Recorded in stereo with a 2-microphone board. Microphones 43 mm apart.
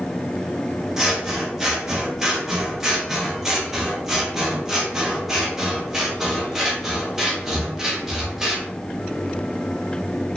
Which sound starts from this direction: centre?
Scissors, at 1.0 s.